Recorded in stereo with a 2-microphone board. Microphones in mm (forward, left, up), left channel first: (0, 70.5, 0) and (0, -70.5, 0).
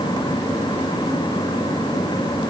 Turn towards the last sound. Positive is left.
No sound to turn to.